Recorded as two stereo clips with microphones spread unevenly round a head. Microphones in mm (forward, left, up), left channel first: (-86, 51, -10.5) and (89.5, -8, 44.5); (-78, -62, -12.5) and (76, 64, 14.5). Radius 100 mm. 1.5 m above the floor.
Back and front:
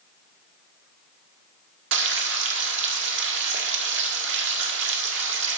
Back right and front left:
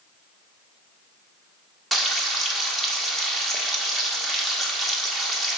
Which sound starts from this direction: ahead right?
Frying, at 1.9 s.